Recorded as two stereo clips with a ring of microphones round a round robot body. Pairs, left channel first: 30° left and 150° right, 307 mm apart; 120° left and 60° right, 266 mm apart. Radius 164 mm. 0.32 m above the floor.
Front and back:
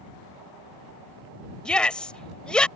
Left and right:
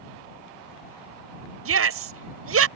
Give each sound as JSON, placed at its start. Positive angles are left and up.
{"t": 1.6, "sound": "a shout", "azimuth_deg": -55}